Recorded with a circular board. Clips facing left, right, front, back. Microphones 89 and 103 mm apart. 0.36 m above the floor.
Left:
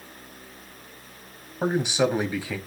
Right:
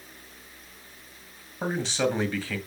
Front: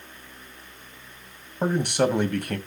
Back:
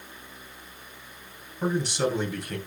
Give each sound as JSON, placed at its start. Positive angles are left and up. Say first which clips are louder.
{"t": 1.6, "sound": "a man speaking", "louder": "left 4 dB, front 4 dB", "azimuth_deg": 15, "distance_m": 2.5}